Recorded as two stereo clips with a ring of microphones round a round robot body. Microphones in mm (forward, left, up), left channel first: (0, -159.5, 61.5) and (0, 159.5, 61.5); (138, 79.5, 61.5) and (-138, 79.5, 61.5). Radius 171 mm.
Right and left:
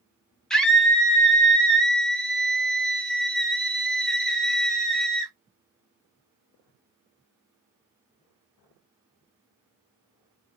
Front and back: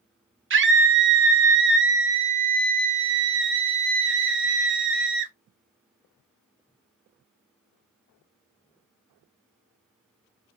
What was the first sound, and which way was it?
A scream, straight behind.